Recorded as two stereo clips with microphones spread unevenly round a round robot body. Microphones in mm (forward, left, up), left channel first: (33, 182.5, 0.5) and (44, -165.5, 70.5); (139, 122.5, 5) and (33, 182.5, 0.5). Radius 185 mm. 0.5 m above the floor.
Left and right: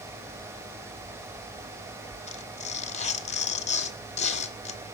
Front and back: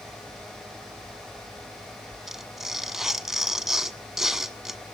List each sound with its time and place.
2.3 s tearing paper: 70° left, 1.3 m